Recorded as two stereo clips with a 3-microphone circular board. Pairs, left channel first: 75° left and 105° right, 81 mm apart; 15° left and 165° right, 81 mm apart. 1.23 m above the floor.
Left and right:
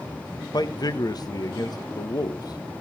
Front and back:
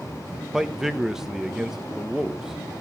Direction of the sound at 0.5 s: 110° left.